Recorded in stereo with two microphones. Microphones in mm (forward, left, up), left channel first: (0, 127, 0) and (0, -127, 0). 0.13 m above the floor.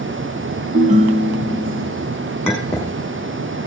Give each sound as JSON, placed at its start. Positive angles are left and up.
{"t": 0.7, "sound": "a ringtone", "side_deg": -30, "distance_m": 2.5}
{"t": 2.5, "sound": "a clink", "side_deg": 10, "distance_m": 6.0}